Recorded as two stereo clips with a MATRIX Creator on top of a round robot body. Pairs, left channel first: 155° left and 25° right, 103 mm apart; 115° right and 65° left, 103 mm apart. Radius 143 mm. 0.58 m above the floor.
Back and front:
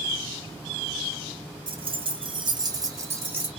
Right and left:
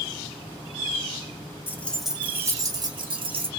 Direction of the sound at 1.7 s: 45° right.